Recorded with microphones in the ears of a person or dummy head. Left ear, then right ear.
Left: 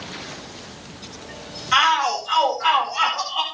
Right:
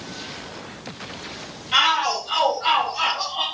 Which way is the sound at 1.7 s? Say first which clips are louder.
Left 1 dB; 50° left (ahead or behind).